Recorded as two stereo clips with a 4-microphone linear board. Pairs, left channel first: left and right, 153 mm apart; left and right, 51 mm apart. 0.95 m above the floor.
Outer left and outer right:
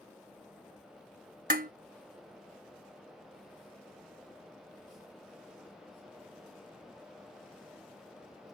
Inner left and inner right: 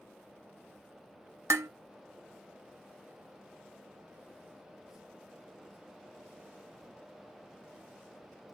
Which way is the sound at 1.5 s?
70° right (ahead or behind).